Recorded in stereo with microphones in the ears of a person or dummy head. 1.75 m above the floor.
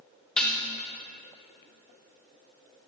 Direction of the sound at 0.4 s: 5° left (ahead or behind).